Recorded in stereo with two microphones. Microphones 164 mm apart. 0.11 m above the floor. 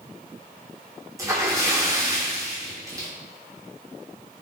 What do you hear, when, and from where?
1.2 s a splash: 20° right (ahead or behind), 1.1 m